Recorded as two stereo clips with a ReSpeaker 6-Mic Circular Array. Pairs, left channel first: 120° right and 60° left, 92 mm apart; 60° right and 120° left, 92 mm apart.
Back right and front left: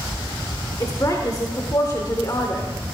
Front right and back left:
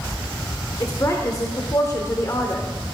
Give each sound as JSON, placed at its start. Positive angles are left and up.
{"t": 0.8, "sound": "a woman speaking", "azimuth_deg": -90, "distance_m": 0.9}